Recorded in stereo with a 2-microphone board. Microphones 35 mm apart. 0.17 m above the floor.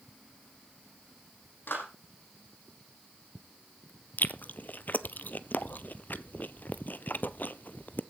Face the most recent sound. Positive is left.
turn(degrees=60)  # may be behind; listen again after turning